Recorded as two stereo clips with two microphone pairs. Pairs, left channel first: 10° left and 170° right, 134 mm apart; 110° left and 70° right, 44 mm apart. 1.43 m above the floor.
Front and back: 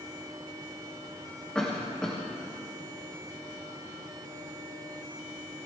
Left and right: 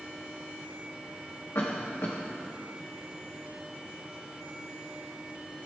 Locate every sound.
1.6 s a cough: 90° left, 1.7 m